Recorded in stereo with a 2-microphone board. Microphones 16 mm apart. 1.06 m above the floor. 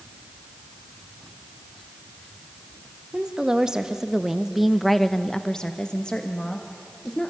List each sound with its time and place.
3.1 s a woman speaking: 60° right (ahead or behind), 1.7 m; by 7.3 s 75° left (ahead or behind), 2 m